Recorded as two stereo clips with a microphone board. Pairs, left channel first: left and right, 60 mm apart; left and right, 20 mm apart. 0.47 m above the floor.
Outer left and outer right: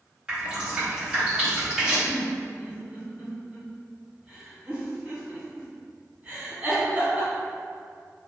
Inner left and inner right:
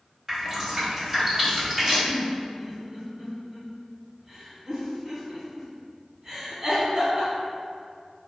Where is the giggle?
30° right (ahead or behind), 1.4 m.